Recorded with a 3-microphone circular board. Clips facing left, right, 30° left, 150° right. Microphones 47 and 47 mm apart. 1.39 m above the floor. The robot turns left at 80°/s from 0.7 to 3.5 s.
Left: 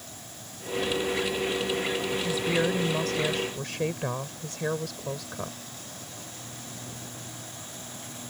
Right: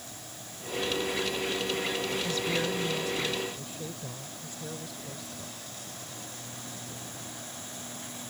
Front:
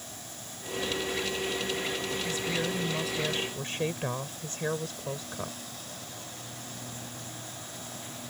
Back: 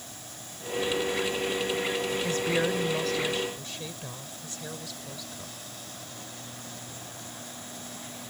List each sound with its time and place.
2.2 s a woman speaking: straight behind; by 5.6 s 80° left